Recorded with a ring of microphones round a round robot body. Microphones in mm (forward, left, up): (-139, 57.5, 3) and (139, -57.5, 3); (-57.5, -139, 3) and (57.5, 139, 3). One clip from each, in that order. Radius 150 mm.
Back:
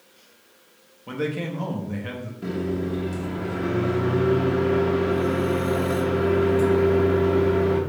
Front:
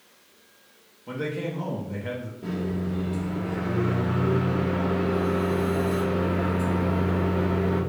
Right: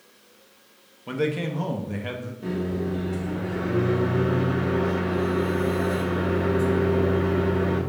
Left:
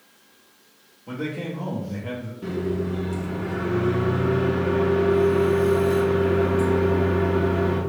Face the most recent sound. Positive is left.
turn(degrees=130)